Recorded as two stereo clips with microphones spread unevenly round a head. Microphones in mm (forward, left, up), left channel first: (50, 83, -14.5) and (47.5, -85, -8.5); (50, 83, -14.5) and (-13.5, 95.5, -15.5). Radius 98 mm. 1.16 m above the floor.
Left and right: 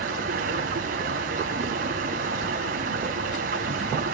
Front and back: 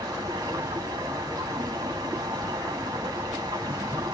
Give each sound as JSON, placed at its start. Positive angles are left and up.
{"t": 0.0, "sound": "running water", "azimuth_deg": -140, "distance_m": 6.5}